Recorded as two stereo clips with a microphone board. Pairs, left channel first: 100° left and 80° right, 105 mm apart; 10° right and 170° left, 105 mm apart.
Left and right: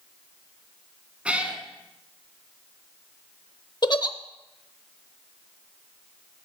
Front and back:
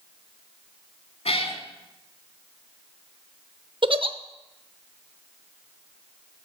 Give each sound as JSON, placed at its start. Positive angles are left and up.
{"t": 1.2, "sound": "a cat meowing", "azimuth_deg": 0, "distance_m": 1.3}
{"t": 3.8, "sound": "a giggle", "azimuth_deg": 140, "distance_m": 0.6}